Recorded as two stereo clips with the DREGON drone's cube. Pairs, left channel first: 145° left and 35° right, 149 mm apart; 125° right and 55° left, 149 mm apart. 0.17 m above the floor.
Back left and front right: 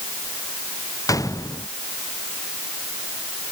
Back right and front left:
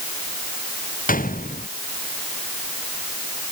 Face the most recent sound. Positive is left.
turn(degrees=-145)